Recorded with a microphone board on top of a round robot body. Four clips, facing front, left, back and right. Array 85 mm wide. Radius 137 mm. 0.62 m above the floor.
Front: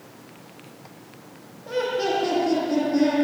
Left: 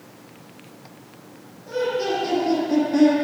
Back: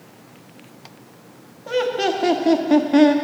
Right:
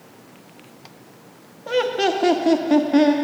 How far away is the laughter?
About 1.5 m.